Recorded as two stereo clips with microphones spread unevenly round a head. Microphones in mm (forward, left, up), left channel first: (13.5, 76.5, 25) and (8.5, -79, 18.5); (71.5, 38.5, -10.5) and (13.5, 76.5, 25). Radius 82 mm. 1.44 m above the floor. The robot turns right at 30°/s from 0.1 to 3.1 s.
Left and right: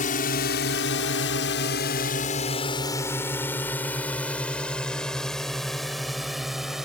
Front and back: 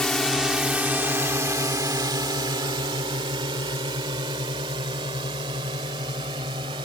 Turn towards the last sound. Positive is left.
turn(degrees=180)